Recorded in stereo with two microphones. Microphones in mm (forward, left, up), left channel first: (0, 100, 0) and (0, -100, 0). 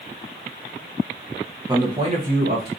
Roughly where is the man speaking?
Centre.